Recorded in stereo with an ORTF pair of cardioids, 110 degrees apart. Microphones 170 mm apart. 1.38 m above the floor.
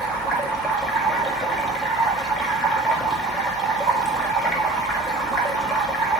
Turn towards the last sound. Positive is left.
turn(degrees=0)